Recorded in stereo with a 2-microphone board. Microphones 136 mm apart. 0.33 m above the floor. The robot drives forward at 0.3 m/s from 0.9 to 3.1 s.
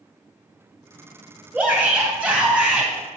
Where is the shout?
10° right (ahead or behind), 2 m.